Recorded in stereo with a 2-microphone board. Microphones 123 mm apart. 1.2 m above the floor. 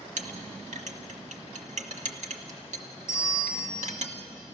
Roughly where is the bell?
Left.